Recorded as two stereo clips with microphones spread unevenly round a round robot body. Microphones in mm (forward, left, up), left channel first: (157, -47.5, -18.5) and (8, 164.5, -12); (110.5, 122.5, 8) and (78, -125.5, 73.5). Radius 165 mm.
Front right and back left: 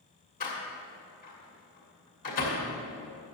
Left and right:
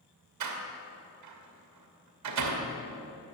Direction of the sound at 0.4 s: 120° right.